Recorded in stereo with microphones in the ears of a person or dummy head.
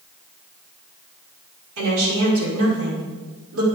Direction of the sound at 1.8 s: 85° right.